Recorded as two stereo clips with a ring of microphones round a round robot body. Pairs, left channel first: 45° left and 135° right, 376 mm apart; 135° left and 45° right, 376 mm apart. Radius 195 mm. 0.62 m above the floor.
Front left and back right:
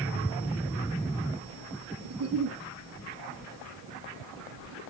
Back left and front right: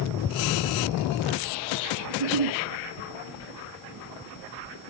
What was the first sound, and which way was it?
A giggle, 80° right.